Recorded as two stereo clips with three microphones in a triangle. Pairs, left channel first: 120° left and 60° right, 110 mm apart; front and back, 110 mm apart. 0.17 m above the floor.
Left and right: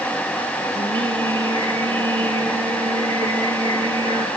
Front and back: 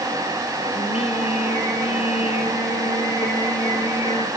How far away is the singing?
About 3.5 m.